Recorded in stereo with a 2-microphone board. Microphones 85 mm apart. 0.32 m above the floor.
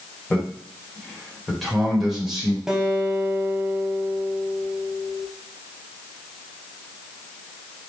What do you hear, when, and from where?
0.3 s a man speaking: 15° left (ahead or behind), 1.7 m; by 2.6 s 10° right (ahead or behind), 1.6 m
2.7 s a guitar: 5° right (ahead or behind), 0.9 m